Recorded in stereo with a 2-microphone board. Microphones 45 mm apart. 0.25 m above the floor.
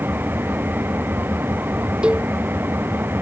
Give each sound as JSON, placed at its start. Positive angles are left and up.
{"t": 0.0, "sound": "an engine running", "side_deg": -55}
{"t": 2.0, "sound": "a cowbell", "side_deg": -25}